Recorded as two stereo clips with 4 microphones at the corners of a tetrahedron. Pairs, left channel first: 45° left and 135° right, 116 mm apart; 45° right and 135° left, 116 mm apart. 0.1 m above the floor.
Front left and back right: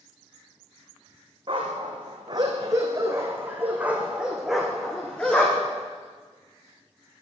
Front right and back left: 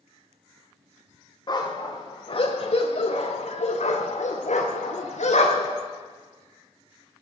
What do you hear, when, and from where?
1.5 s a dog barking: 90° right, 3 m; by 5.8 s 30° right, 3 m